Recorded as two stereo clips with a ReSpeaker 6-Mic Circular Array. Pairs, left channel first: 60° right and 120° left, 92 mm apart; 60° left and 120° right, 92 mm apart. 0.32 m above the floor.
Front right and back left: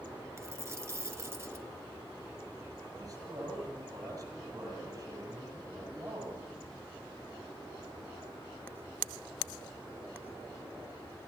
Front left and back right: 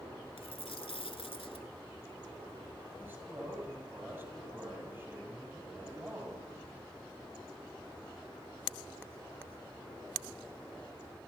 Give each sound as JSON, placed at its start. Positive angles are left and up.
{"t": 0.4, "sound": "a dropped coin", "azimuth_deg": 60, "distance_m": 1.2}
{"t": 3.0, "sound": "a man speaking", "azimuth_deg": 175, "distance_m": 8.5}